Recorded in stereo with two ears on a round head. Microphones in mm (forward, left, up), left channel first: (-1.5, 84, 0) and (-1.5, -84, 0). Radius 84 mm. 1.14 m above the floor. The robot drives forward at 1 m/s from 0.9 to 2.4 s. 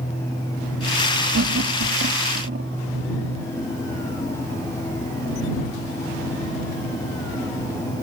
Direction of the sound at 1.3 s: 75° right (ahead or behind).